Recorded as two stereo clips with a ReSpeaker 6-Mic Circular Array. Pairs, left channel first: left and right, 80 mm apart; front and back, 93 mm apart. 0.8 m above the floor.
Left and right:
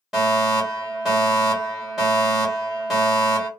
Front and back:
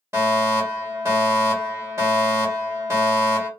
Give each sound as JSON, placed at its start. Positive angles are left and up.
{"t": 0.1, "sound": "a fire alarm", "azimuth_deg": -165, "distance_m": 1.7}